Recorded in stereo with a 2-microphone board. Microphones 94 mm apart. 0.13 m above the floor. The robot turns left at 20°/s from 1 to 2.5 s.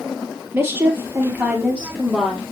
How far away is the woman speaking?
About 2.5 m.